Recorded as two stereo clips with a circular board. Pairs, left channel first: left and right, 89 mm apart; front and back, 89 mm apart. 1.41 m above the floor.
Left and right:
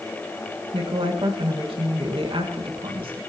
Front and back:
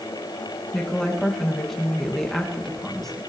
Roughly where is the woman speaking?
Right.